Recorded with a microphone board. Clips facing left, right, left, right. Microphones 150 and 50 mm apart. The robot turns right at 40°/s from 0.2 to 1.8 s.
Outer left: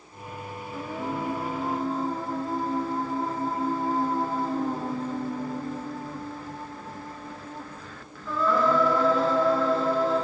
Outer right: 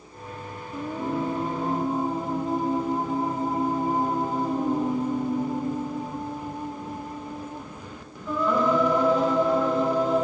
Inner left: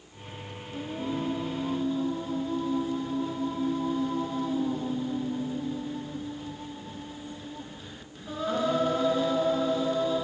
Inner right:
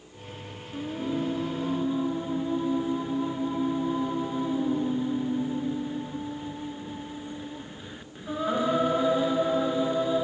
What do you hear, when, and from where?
0.7 s singing: 20° right (ahead or behind), 1.1 m